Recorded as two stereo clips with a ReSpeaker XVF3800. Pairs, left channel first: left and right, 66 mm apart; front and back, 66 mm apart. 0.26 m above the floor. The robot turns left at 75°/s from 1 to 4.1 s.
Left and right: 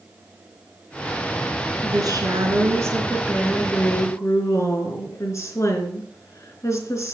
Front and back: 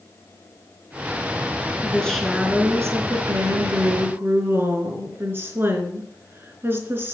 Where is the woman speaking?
65° right, 3.5 m; by 7.1 s 125° left, 3.5 m.